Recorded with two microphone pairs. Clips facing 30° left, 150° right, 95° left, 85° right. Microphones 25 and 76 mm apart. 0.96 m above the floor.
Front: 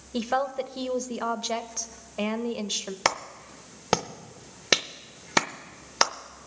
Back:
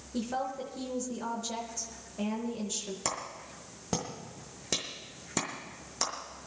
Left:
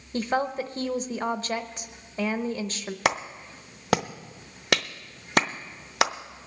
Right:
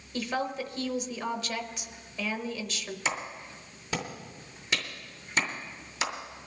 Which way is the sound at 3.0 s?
65° left.